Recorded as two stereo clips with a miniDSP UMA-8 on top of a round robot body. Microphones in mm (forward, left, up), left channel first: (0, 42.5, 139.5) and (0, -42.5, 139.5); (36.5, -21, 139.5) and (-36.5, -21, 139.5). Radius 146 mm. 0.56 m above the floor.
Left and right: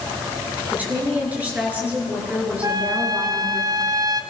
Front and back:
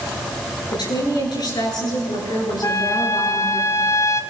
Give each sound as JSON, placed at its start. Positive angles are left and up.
{"t": 0.7, "sound": "a woman speaking", "azimuth_deg": -20, "distance_m": 9.5}
{"t": 2.6, "sound": "a trumpet", "azimuth_deg": -45, "distance_m": 1.9}